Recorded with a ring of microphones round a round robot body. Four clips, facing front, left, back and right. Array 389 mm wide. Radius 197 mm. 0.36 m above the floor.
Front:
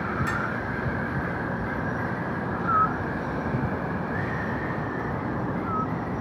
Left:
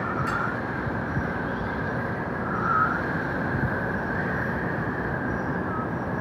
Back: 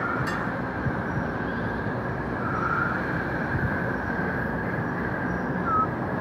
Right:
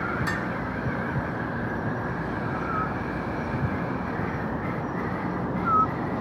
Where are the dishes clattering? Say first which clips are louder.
Left 2 dB, front 1 dB; 60° right, 1.6 m.